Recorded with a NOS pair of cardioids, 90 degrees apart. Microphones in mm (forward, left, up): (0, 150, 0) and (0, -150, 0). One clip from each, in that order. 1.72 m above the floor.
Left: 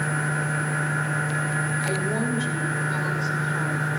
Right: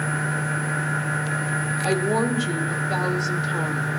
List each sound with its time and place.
1.9 s a woman speaking: 55° right, 1.6 m